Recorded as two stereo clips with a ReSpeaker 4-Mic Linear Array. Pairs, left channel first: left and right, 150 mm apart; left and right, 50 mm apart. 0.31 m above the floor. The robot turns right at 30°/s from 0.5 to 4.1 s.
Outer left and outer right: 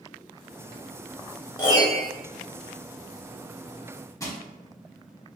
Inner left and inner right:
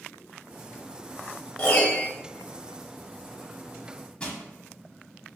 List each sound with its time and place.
1.6 s a piano: 30° left (ahead or behind), 0.7 m; by 2.1 s 40° left (ahead or behind), 0.7 m
4.2 s crushing: 20° left (ahead or behind), 0.5 m